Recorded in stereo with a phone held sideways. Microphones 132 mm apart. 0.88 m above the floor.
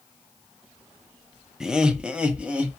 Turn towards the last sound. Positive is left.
turn(degrees=-10)  # may be behind; listen again after turning